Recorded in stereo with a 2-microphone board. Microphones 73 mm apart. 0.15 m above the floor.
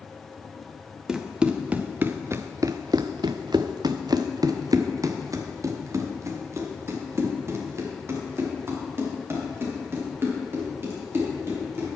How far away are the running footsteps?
About 1.2 m.